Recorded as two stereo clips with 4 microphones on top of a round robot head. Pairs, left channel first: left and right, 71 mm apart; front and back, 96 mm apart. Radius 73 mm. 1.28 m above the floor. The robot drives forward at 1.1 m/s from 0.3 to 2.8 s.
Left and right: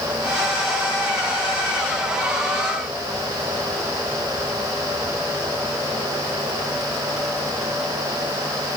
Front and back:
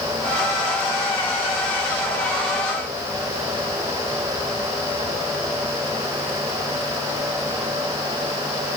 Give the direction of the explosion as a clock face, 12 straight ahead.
I don't hear an explosion.